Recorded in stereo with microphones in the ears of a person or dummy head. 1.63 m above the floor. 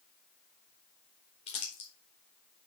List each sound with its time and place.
1.5 s crumpling: 30° left (ahead or behind), 1.1 m